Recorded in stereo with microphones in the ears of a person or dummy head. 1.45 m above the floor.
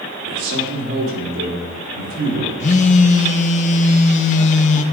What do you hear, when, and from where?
0.2 s a man speaking: 80° right, 3 m; by 2.5 s 60° right (ahead or behind), 5 m
2.6 s a phone buzzing: 45° left (ahead or behind), 0.7 m